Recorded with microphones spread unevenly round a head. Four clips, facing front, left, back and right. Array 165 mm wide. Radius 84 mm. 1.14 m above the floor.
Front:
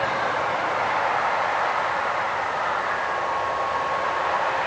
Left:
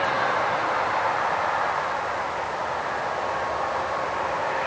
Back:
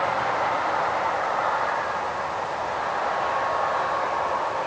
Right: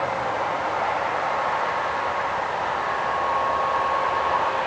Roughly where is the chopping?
I don't hear chopping.